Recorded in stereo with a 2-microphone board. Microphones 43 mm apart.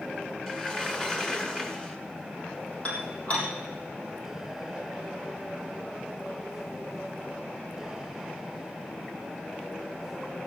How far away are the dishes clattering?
About 3.5 m.